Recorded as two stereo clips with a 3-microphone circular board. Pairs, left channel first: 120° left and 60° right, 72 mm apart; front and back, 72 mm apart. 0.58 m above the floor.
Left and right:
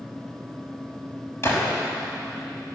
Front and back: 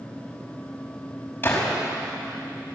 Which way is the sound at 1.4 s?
65° left.